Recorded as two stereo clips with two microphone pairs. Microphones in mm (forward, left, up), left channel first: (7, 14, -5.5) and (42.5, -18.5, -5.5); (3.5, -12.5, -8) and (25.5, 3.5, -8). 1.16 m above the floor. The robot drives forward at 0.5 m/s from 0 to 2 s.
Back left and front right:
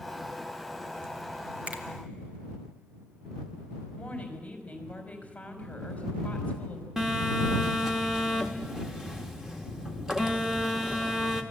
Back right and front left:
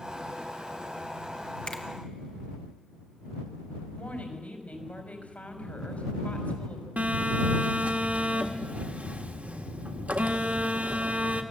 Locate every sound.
1.7 s a finger snap: 100° right, 1.6 m
4.0 s a woman speaking: 155° right, 4 m
7.0 s a phone buzzing: 35° left, 1.8 m